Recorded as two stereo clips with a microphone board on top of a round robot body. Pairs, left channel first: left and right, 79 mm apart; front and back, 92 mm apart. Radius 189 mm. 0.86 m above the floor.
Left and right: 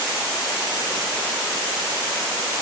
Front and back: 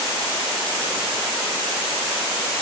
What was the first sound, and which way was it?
Only background noise.